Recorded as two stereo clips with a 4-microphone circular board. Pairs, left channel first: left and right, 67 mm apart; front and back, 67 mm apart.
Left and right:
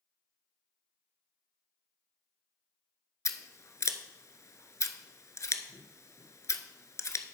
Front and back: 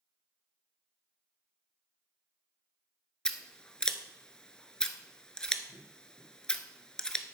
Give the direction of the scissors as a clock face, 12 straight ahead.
9 o'clock.